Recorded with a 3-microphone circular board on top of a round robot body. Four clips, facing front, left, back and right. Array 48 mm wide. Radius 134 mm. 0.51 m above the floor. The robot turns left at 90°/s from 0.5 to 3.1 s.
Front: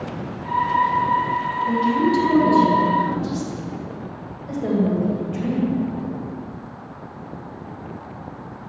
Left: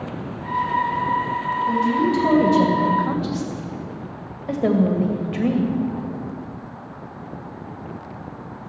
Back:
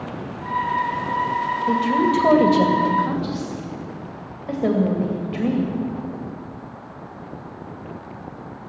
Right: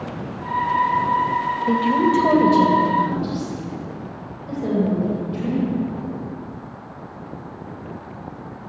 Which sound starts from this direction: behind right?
A woman speaking, at 1.7 s.